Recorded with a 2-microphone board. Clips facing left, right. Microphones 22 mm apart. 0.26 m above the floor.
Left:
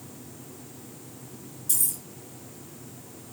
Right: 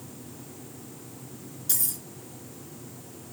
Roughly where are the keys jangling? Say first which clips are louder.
Left 1 dB; right.